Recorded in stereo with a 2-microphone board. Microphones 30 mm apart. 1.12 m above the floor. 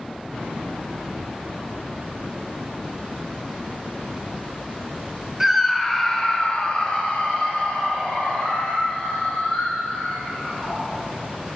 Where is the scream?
15° right (ahead or behind), 0.8 m; by 10.8 s 60° left (ahead or behind), 5 m.